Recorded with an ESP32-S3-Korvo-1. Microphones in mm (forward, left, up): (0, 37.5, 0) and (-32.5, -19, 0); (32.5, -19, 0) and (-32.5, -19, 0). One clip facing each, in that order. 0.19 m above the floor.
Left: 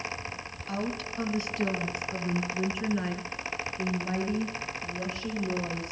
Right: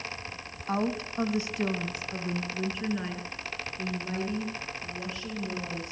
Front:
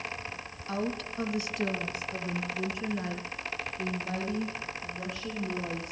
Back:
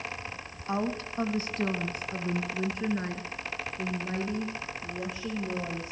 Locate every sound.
0.7 s a woman speaking: 130° right, 1.2 m; by 5.9 s 130° left, 4 m